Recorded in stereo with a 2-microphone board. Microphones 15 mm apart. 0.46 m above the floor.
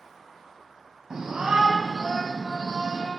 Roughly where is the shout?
Right.